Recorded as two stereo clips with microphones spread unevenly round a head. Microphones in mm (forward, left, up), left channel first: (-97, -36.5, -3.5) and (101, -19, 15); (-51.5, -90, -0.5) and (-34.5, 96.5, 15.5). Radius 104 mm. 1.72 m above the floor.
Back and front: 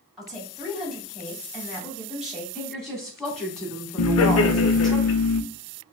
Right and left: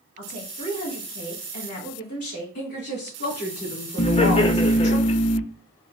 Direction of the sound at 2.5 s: 85° right.